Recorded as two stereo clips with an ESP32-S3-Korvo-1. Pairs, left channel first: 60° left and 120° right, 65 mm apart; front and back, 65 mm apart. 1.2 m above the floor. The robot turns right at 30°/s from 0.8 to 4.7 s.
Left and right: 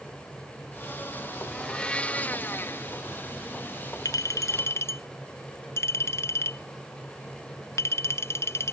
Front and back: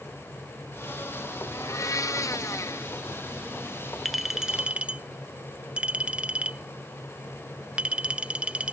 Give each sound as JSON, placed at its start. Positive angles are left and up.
{"t": 1.5, "sound": "a blender", "azimuth_deg": -20}
{"t": 4.0, "sound": "a clink", "azimuth_deg": 90}